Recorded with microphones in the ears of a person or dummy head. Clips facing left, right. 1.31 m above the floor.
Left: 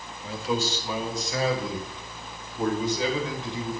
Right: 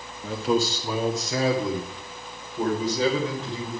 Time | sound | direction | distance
0.2 | a man speaking | 40° right (ahead or behind) | 1.7 m